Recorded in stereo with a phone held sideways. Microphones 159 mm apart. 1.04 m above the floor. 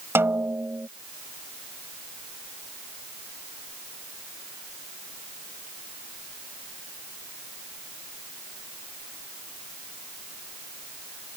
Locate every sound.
0.1 s a snare drum: 15° right (ahead or behind)